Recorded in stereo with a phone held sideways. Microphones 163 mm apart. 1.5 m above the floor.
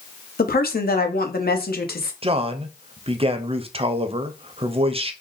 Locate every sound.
0.4 s a woman speaking: 65° left (ahead or behind), 0.8 m
2.2 s a man speaking: 35° right (ahead or behind), 0.5 m